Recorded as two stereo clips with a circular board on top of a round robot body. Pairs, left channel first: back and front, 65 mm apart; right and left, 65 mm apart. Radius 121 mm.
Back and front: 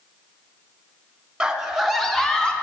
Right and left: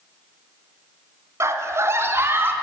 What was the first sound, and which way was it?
A scream, 75° left.